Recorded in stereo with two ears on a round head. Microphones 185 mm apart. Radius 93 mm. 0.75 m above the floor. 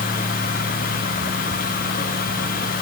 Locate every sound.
Only background noise.